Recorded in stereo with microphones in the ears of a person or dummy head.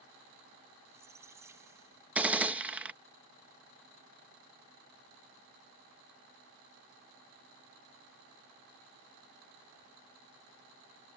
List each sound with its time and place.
0.8 s a squeak: 20° right (ahead or behind)
2.1 s a gunshot: 5° right (ahead or behind)